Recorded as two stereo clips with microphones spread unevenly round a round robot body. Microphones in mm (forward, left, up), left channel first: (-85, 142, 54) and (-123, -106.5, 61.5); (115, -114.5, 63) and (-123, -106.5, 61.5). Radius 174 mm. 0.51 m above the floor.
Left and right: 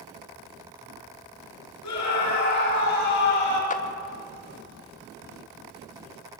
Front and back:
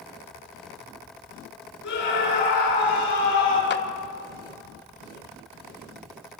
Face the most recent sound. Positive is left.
turn(degrees=30)